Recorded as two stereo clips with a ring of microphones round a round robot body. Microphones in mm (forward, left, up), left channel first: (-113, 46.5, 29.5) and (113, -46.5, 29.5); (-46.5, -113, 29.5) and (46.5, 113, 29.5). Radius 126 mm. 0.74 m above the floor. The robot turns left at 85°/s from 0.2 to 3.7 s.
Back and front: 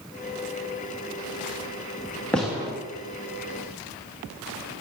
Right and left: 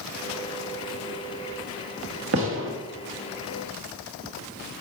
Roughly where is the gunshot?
Left.